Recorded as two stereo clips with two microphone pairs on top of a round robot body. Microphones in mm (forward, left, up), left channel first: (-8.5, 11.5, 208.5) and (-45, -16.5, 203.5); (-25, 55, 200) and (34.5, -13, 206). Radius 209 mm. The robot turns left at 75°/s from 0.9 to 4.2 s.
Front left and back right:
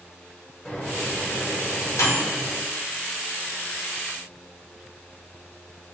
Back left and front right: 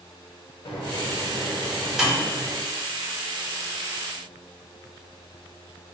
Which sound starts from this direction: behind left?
A microwave, at 0.7 s.